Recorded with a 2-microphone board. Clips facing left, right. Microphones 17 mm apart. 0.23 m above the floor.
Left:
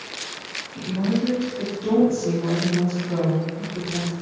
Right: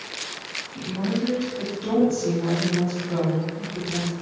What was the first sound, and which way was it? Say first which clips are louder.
A woman speaking: left 3 dB; 20° right (ahead or behind).